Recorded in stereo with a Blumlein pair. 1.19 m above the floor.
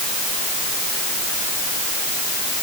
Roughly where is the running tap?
I don't hear a running tap.